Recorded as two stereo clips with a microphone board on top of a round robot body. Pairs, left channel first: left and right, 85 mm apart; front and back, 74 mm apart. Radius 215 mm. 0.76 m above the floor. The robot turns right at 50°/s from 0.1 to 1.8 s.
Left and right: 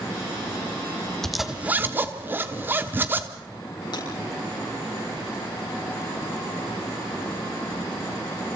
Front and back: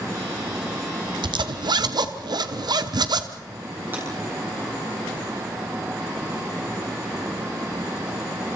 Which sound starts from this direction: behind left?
Breaking glass, at 3.9 s.